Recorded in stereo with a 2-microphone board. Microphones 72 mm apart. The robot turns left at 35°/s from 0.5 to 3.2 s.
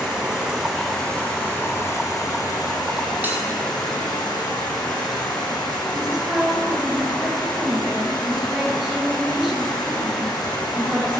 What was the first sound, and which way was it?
Running water, 165° right.